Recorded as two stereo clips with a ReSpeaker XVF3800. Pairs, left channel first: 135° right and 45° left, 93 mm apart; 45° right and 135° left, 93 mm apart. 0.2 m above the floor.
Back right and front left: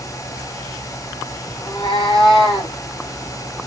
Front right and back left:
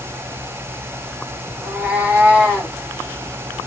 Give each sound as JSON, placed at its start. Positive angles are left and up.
{"t": 1.6, "sound": "a cat meowing", "azimuth_deg": -155, "distance_m": 1.4}